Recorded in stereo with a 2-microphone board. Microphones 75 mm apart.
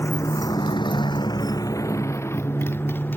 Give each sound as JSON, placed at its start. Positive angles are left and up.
{"t": 0.0, "sound": "a motorcycle", "side_deg": 35}